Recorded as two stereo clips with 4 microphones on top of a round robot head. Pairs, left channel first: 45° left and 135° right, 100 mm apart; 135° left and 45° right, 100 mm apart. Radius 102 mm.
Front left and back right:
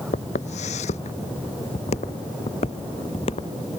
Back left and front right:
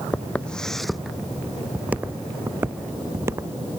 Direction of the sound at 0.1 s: 60° left.